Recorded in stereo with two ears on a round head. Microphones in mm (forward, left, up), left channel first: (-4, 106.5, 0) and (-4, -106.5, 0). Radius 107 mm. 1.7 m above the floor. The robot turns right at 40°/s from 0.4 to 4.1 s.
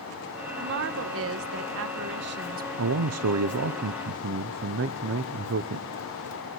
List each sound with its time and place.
0.6 s a woman speaking: 125° right, 1.2 m; by 2.7 s 40° right, 1.2 m
2.8 s a man speaking: 110° right, 0.7 m; by 5.9 s 55° right, 0.7 m